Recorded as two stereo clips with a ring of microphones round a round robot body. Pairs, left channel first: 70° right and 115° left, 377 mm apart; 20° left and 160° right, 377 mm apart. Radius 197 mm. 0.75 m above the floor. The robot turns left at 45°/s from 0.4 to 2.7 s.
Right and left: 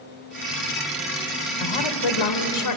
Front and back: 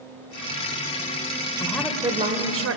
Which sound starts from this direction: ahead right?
A woman speaking, at 1.6 s.